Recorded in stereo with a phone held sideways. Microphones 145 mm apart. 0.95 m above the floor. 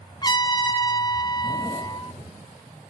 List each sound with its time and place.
0.2 s a trumpet: 30° left (ahead or behind), 0.9 m